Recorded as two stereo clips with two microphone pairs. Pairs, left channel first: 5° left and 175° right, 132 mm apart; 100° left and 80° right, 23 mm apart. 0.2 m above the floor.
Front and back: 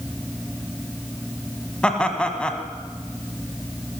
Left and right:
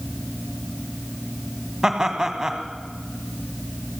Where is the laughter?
70° right, 1.1 m.